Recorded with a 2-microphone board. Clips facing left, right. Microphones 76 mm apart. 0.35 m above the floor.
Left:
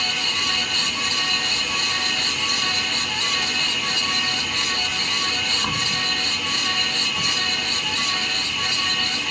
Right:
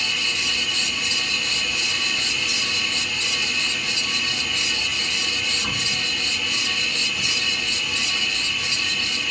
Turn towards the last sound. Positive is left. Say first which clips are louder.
# left 2 dB
turn(degrees=65)  # may be behind; listen again after turning